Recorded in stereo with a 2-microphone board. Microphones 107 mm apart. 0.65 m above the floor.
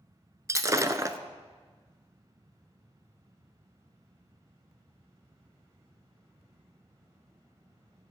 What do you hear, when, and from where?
0.5 s breaking glass: 30° right (ahead or behind), 0.6 m